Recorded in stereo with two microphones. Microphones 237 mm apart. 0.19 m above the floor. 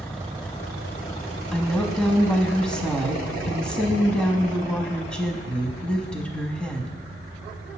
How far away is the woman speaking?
About 1.0 m.